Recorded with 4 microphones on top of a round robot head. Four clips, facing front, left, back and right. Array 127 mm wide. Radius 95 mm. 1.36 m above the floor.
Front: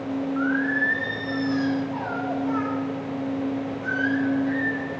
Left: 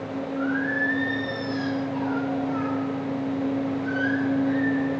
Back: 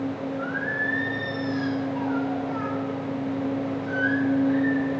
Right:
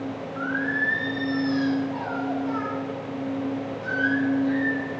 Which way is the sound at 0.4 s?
30° right.